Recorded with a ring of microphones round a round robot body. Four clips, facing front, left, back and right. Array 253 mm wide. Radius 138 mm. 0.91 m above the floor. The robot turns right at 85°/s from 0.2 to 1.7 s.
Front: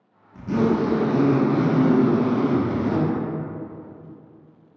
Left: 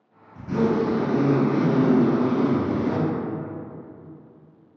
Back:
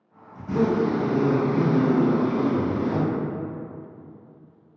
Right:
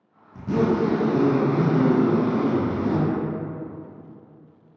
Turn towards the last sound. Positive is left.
turn(degrees=45)